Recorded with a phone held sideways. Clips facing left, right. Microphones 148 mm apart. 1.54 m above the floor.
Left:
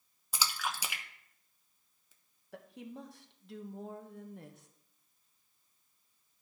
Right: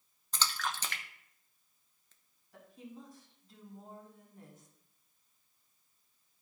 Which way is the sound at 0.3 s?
10° left (ahead or behind).